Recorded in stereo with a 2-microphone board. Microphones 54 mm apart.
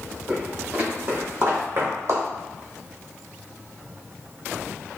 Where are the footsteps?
20° right (ahead or behind), 1.7 m; by 2.2 s 60° right (ahead or behind), 1.2 m.